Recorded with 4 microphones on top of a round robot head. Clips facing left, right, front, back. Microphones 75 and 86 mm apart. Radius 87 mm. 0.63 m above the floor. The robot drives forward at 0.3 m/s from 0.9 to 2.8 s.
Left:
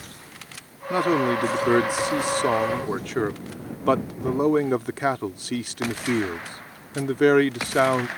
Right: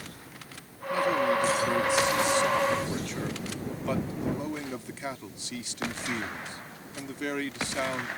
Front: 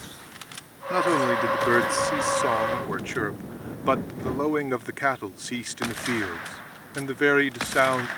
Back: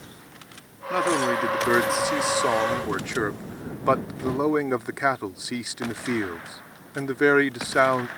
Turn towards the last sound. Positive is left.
turn(degrees=105)